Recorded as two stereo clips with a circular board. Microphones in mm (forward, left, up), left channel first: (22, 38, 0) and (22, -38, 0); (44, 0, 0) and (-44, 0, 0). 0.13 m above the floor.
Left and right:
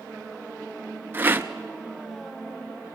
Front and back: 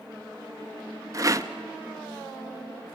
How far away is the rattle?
About 0.7 m.